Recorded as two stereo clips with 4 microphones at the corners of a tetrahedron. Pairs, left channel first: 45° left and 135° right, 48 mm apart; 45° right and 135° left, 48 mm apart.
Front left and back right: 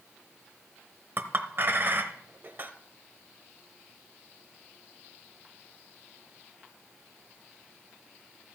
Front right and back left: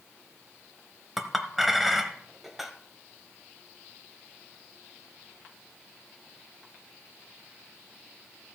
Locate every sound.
1.2 s a clink: 140° right, 0.9 m